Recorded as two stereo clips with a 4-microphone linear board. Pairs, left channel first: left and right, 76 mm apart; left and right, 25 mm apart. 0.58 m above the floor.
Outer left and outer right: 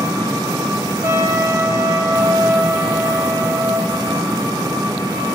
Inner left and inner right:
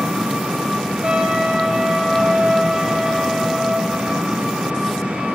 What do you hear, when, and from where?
0.0 s an engine running: 85° right, 2 m
1.0 s a trumpet: 40° right (ahead or behind), 0.8 m